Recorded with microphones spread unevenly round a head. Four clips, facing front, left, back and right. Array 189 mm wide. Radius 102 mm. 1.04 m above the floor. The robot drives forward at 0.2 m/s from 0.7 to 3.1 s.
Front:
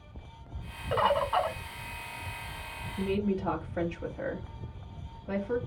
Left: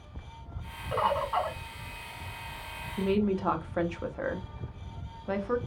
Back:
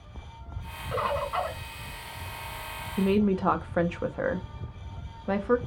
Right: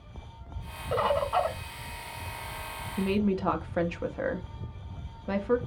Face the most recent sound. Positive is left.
turn(degrees=-170)